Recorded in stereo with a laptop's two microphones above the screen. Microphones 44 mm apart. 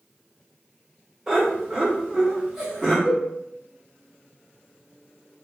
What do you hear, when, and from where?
1.3 s laughter: 15° right (ahead or behind), 1.0 m
3.0 s a cowbell: 10° left (ahead or behind), 1.2 m